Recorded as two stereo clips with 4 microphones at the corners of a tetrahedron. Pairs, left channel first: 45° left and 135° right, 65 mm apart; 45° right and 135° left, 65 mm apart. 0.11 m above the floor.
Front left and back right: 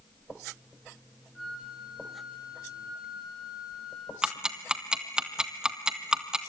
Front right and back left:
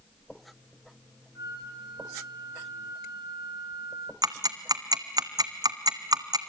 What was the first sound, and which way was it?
A flute, 135° left.